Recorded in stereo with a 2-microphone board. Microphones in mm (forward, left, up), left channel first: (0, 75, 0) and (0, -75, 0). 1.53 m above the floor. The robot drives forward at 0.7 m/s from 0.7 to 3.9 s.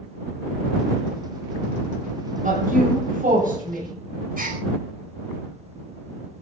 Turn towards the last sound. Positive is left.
turn(degrees=-80)